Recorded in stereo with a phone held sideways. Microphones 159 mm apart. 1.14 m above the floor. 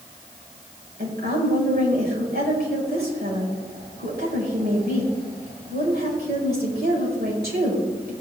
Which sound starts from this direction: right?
A woman speaking, at 1.0 s.